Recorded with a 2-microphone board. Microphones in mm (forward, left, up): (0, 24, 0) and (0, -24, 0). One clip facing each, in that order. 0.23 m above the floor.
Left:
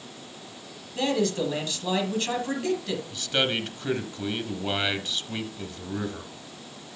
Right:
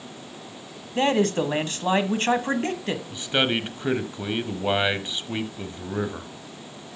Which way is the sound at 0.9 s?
40° right (ahead or behind).